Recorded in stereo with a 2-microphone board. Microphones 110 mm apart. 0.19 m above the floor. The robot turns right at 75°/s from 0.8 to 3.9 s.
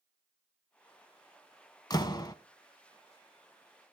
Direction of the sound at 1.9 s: 80° left.